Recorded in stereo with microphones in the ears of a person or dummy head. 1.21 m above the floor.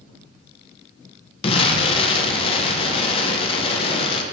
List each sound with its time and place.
1.4 s an explosion: 30° left (ahead or behind), 1.1 m